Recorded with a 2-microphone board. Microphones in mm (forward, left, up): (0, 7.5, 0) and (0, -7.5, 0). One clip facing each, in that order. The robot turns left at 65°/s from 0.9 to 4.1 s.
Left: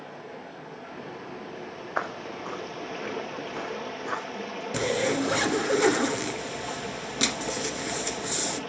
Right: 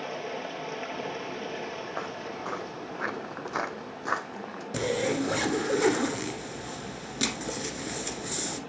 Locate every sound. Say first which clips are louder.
0.0 s running water: right 6 dB; 85° right, 1.4 m; by 8.7 s 65° left, 1.4 m
2.0 s footsteps: left 3 dB; 50° left (ahead or behind), 0.8 m; by 4.6 s 30° right (ahead or behind), 2 m
4.7 s a zipper: left 2 dB; 10° left (ahead or behind), 0.8 m